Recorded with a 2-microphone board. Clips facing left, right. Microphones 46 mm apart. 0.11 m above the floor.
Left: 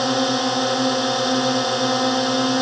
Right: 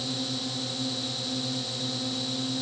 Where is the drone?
65° left (ahead or behind).